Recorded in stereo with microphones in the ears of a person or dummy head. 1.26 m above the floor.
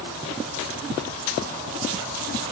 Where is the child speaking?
I don't hear a child speaking.